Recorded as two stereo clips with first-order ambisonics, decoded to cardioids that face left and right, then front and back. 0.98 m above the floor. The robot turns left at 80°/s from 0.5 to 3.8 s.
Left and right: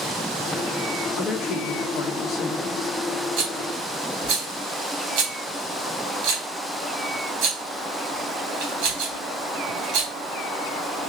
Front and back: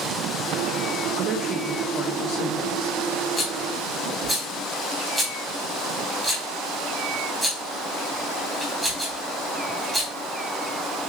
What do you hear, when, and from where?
1.2 s a woman speaking: 140° left, 1.7 m; by 3.0 s 5° right, 1.7 m
3.4 s a rattle: 65° right, 3 m; by 10.1 s 100° right, 3 m